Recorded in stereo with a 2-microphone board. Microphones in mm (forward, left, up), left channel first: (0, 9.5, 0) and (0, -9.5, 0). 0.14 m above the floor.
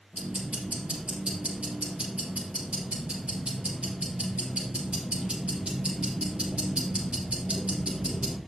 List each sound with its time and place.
0.1 s ticking: 65° right (ahead or behind), 4.5 m